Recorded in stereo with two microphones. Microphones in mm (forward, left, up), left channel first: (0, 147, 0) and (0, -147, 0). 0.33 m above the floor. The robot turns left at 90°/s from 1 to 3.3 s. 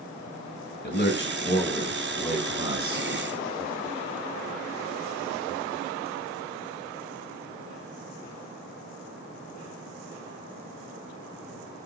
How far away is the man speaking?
About 1.6 m.